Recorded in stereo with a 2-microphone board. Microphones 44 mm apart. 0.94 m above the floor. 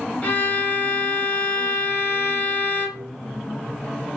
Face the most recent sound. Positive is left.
turn(degrees=30)  # may be behind; listen again after turning